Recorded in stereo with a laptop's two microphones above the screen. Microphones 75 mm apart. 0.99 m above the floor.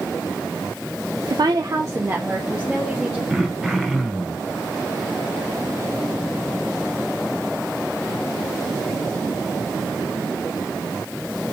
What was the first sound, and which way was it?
A woman speaking, 55° right (ahead or behind).